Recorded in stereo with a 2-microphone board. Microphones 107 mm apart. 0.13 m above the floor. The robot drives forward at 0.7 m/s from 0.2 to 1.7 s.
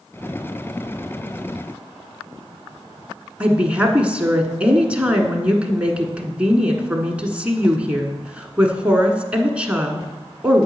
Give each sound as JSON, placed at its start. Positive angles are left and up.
{"t": 3.4, "sound": "a woman speaking", "side_deg": -10, "distance_m": 1.1}